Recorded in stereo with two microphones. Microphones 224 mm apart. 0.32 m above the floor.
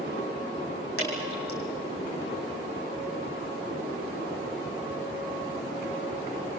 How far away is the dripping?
About 6.5 m.